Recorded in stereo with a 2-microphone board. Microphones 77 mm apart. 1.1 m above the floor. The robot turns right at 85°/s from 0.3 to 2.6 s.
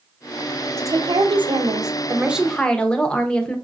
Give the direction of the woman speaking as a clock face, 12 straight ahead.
5 o'clock.